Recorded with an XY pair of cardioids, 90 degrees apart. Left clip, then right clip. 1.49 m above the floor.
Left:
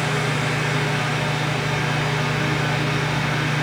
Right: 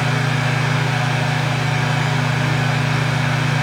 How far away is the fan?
About 1.2 m.